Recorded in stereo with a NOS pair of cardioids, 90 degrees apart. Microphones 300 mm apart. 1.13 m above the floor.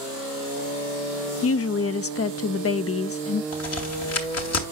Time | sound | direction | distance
1.4 | a woman speaking | 50° left | 0.6 m
3.5 | a crack | 55° left | 2.5 m